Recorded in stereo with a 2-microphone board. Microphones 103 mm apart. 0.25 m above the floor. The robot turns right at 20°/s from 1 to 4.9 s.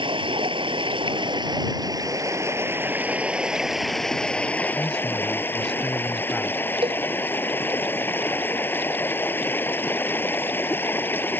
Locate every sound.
0.0 s running water: 60° right; by 11.4 s 20° left
4.8 s a man speaking: 5° left (ahead or behind)
6.8 s a cowbell: 55° right (ahead or behind)